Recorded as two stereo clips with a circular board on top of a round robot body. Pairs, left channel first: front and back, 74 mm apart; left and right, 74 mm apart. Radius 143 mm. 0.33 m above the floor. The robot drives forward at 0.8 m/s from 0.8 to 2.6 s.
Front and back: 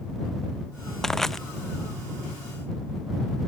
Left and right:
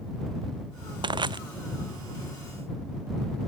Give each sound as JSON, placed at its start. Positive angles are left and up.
{"t": 1.0, "sound": "crushing", "azimuth_deg": -85}